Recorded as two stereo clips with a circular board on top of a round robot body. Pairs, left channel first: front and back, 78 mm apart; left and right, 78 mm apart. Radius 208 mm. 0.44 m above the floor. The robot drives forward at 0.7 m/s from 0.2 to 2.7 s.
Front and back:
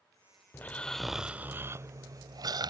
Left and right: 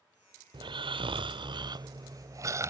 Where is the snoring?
65° right; by 2.7 s 145° right.